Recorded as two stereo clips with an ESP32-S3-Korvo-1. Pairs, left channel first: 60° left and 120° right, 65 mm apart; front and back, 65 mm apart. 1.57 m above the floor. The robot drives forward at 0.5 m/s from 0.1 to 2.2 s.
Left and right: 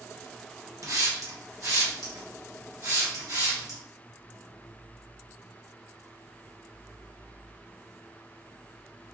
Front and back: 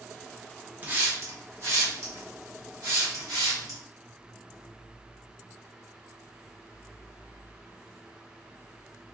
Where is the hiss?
120° right, 0.7 m; by 3.8 s 155° right, 1.2 m.